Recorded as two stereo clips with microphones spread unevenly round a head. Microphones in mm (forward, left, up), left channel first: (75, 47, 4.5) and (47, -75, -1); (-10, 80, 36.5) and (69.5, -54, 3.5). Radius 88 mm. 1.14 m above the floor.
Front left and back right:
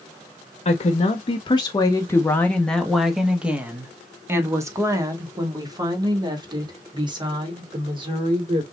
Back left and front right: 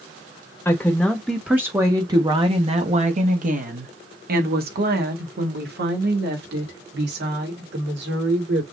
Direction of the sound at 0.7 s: 45° left.